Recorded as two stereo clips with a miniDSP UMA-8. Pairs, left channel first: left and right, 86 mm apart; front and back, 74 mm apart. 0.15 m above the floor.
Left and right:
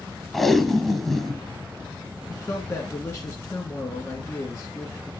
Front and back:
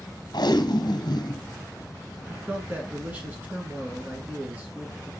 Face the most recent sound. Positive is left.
turn(degrees=125)